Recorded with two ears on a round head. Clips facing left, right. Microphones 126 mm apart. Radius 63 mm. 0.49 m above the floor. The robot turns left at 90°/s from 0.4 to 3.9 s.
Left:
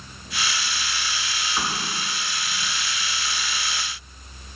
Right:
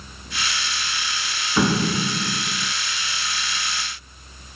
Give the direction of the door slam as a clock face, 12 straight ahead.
2 o'clock.